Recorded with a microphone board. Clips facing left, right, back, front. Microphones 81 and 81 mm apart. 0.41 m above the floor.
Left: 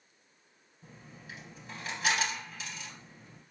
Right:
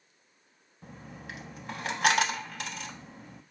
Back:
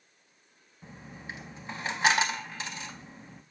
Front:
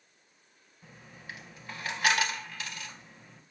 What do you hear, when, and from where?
0.8 s a dropped coin: 115° right, 0.5 m